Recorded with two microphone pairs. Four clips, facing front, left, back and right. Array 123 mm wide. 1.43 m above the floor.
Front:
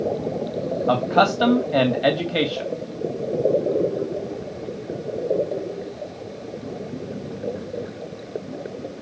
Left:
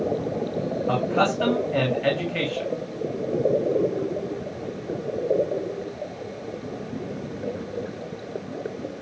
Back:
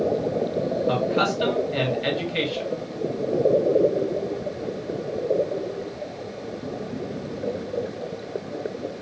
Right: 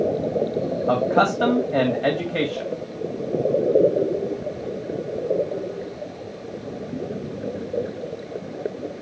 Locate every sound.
0.9 s a man speaking: 20° right, 2.5 m